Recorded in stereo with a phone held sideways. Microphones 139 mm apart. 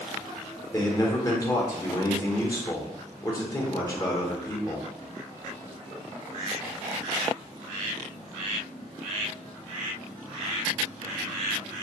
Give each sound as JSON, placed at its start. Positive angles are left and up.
{"t": 0.7, "sound": "a man speaking", "side_deg": 25, "distance_m": 0.6}